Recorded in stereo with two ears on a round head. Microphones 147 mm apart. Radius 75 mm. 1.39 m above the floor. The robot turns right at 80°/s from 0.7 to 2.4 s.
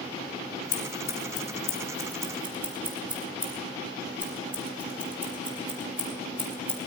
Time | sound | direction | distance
0.7 | scissors | 55° left (ahead or behind) | 4.5 m